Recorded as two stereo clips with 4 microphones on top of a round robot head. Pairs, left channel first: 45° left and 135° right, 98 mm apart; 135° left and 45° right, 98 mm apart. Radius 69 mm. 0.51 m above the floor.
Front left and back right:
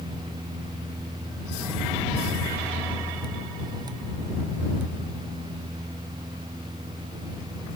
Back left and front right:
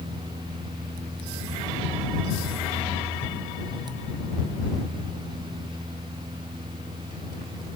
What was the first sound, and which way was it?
Only background noise.